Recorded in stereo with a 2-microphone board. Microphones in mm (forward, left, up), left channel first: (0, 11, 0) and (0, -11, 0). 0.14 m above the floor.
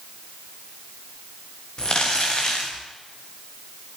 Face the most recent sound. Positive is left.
turn(degrees=40)  # may be behind; listen again after turning